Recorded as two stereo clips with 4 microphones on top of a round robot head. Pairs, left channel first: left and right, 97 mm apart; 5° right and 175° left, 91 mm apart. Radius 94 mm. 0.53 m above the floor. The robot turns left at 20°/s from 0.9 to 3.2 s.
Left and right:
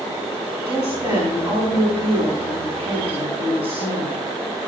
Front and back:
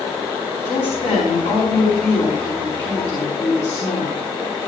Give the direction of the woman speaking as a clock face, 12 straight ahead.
1 o'clock.